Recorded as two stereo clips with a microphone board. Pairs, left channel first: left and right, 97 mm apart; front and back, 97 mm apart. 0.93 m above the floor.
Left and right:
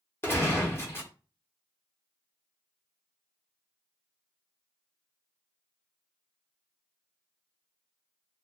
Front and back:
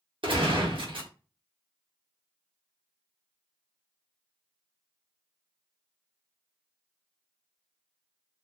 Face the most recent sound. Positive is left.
turn(degrees=155)